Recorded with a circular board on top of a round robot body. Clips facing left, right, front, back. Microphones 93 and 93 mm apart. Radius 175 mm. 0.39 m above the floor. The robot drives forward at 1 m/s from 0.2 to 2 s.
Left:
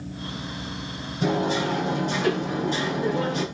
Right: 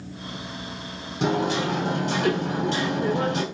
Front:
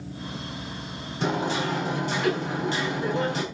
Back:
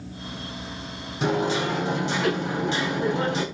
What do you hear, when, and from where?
1.2 s hammering: 100° right, 6.5 m; by 3.4 s 110° right, 6.5 m